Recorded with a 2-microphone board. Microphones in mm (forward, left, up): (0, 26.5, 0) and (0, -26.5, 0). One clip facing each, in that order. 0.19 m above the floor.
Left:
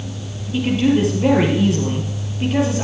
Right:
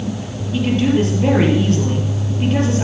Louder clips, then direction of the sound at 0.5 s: Even; 5° left (ahead or behind).